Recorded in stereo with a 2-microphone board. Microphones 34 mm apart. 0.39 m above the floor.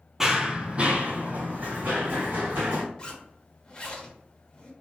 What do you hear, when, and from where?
0.2 s running footsteps: 15° right (ahead or behind), 0.5 m; by 2.8 s 65° right (ahead or behind), 1.7 m
3.0 s a zipper: 25° left (ahead or behind), 0.8 m